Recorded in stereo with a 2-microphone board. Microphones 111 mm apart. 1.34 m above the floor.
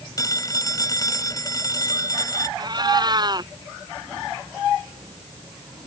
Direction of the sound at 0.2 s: 30° left (ahead or behind).